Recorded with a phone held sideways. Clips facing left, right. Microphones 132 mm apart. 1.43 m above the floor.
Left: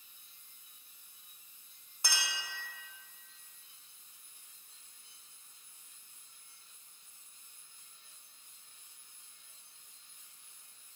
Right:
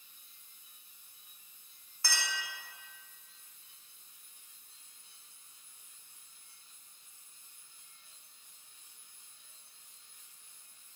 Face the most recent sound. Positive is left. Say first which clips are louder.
# right 1 dB
turn(degrees=20)  # may be behind; listen again after turning